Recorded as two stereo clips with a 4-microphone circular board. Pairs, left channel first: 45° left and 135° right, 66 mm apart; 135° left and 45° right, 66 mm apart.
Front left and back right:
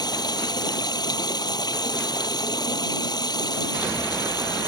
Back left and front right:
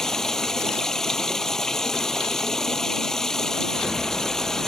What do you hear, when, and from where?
0.0 s running water: 50° left